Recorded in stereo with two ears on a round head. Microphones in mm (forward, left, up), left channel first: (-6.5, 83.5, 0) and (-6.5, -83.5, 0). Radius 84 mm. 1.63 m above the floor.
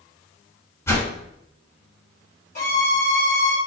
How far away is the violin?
About 2.5 m.